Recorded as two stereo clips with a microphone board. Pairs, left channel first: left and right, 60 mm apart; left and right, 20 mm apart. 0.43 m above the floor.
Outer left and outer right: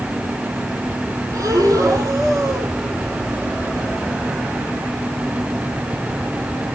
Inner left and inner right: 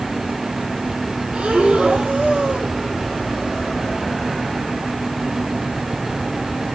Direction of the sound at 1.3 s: 80° right.